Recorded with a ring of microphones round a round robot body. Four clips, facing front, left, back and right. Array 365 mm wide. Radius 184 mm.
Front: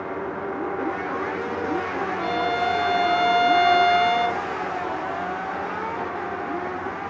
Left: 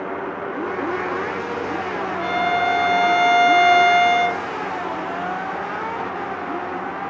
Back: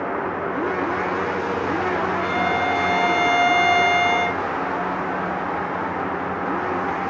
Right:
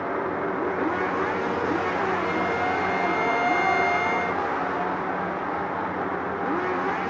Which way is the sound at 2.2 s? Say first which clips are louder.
Left 5 dB, back 2 dB; 80° left.